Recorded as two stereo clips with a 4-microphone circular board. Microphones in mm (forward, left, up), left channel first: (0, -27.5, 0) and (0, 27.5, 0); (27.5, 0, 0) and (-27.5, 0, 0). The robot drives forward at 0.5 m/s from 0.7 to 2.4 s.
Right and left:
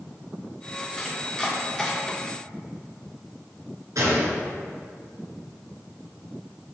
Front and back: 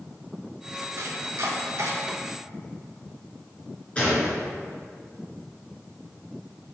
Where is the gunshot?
70° left, 3.5 m.